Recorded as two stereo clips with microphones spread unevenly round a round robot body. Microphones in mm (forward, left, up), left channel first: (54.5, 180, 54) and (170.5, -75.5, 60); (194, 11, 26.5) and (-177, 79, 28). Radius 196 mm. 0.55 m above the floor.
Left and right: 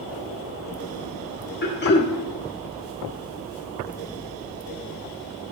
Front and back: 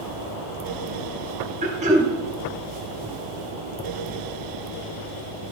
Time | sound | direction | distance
1.6 | throat clearing | 110° left | 1.4 m